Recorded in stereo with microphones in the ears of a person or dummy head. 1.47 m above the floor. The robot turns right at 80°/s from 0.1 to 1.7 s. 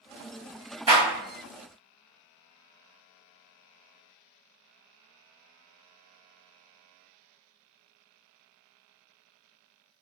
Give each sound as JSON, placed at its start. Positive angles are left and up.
{"t": 0.9, "sound": "a clap", "side_deg": -15, "distance_m": 1.3}